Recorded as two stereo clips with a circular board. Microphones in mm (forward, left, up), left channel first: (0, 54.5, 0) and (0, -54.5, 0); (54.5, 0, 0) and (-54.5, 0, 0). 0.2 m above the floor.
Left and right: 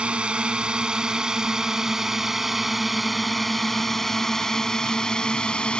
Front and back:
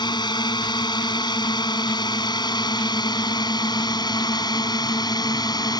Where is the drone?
15° right; by 5.8 s 15° left.